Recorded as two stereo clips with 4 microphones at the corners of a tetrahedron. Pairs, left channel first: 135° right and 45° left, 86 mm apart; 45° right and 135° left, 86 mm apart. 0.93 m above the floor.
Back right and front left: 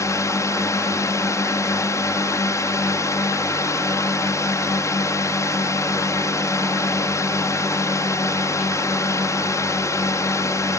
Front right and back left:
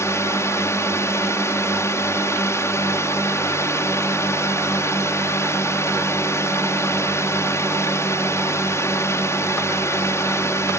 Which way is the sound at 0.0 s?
95° right.